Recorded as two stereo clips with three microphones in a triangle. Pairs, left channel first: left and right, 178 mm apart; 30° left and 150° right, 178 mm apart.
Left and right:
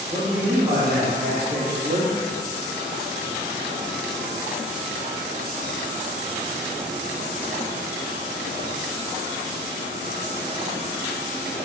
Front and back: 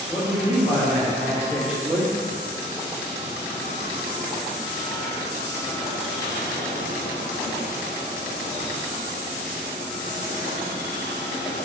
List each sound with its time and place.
0.1 s a man speaking: 25° right, 1.4 m; by 2.1 s 65° right, 1.6 m